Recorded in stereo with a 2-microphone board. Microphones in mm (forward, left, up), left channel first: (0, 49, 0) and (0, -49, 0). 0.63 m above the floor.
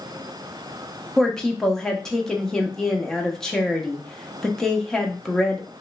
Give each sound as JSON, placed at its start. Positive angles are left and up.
{"t": 1.2, "sound": "a woman speaking", "side_deg": 5, "distance_m": 0.7}